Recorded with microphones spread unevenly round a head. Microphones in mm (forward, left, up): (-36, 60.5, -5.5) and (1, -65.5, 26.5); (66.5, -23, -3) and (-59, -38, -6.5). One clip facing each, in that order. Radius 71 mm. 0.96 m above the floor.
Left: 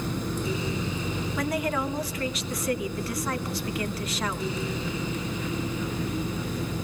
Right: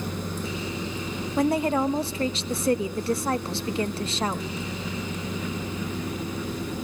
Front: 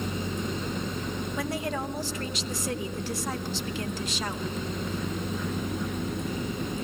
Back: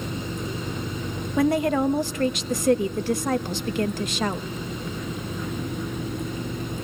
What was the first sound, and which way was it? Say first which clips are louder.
A woman speaking: right 7 dB, back 13 dB; 140° right.